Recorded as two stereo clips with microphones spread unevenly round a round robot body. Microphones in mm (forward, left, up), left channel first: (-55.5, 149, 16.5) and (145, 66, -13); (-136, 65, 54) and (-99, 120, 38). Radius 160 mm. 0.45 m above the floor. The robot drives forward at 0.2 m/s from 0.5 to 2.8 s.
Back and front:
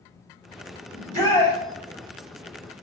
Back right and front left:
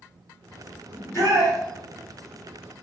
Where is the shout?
60° right, 1.1 m; by 1.6 s 70° right, 1.1 m.